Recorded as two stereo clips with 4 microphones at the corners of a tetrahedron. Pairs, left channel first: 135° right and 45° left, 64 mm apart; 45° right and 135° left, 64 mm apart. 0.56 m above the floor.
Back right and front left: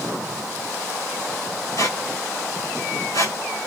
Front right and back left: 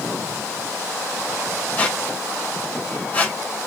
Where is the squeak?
110° right, 2.0 m.